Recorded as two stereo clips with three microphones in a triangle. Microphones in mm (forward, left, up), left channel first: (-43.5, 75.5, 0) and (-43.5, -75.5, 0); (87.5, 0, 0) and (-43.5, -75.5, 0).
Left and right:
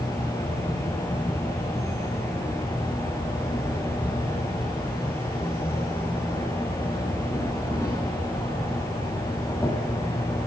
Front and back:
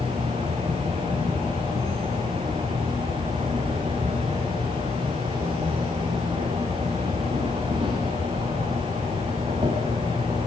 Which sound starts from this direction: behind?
An insect, at 0.0 s.